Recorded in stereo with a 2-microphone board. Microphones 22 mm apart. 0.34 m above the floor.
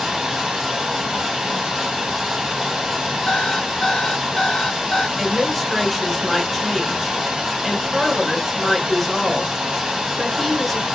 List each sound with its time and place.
0.0 s running water: 55° right (ahead or behind), 1.7 m
3.3 s an alarm clock: 40° left (ahead or behind), 1.1 m
5.2 s a woman speaking: 5° right (ahead or behind), 1.3 m